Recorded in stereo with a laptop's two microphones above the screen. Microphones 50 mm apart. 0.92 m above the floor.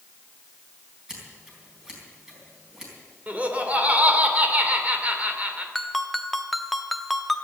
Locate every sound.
1.1 s scissors: 10° right (ahead or behind), 4 m
3.3 s laughter: 30° right (ahead or behind), 3 m
5.8 s a ringtone: centre (ahead or behind), 0.6 m